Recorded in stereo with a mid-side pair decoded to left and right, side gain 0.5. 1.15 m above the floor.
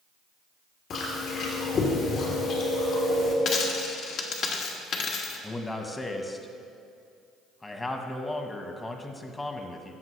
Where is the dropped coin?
65° left, 1.3 m.